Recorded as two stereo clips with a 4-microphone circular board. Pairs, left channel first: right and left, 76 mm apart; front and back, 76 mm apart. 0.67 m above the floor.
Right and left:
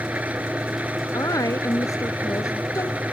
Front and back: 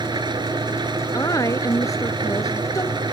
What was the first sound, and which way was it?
An engine running, 160° left.